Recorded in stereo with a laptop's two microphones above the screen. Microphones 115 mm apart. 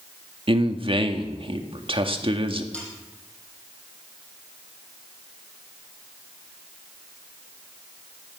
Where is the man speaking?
50° right (ahead or behind), 1.9 m.